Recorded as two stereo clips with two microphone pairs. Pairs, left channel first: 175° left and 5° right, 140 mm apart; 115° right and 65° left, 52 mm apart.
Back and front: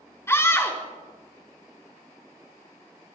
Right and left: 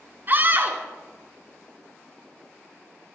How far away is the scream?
About 3 m.